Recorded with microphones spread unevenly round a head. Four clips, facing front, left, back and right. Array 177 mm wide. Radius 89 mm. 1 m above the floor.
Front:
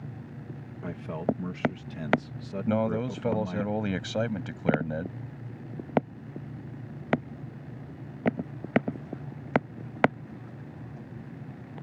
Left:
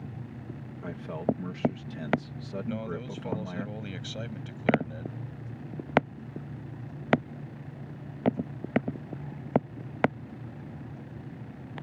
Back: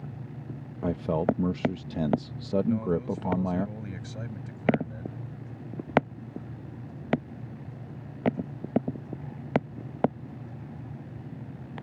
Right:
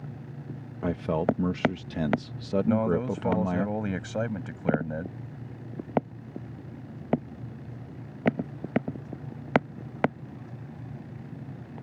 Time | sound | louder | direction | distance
0.8 | a man speaking | right 5 dB, back 5 dB | 135° right | ?
2.7 | a man speaking | right 10 dB, even | 35° right | ?